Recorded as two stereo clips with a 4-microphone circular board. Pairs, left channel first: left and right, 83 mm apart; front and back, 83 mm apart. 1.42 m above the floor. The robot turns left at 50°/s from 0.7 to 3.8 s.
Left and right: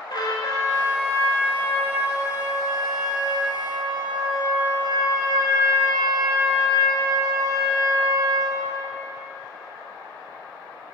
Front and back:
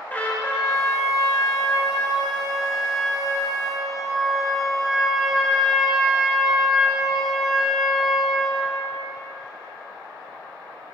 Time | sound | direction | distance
0.1 | a trumpet | 65° left | 3.5 m